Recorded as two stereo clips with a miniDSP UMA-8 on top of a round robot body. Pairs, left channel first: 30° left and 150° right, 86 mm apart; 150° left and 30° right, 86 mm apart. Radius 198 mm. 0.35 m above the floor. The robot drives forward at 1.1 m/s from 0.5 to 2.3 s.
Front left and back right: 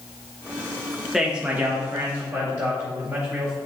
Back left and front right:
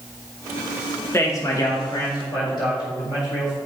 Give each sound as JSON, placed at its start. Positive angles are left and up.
{"t": 1.1, "sound": "a man speaking", "azimuth_deg": 130, "distance_m": 1.3}